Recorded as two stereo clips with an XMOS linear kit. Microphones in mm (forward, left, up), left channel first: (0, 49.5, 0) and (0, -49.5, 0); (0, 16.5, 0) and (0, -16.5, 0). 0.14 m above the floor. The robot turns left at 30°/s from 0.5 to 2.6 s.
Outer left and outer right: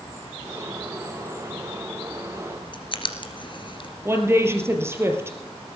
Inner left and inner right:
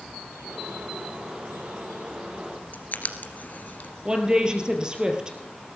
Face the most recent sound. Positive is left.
turn(degrees=-25)  # may be behind; listen again after turning